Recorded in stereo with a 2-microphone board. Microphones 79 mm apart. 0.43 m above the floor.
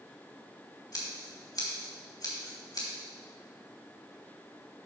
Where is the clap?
No clap in this recording.